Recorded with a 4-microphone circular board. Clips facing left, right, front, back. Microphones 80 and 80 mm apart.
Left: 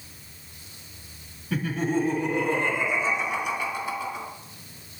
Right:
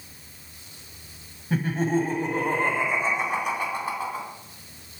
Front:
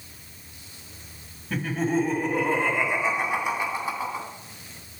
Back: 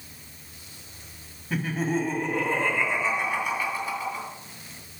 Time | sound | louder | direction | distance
1.5 | laughter | right 2 dB, front 2 dB | 100° right | 1.7 m